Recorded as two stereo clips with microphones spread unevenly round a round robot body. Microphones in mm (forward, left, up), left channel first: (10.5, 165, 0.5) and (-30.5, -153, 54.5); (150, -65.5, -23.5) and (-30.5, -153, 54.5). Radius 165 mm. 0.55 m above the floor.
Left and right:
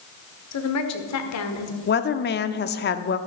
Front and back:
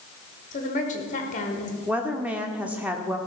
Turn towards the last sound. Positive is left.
turn(degrees=100)